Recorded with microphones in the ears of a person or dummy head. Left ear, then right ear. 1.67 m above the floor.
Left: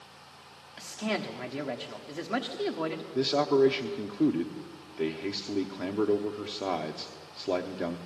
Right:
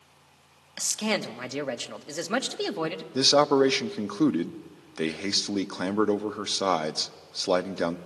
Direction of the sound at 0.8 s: 80° right.